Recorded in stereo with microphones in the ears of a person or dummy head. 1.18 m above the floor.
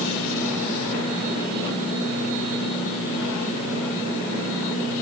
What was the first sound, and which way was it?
Only background noise.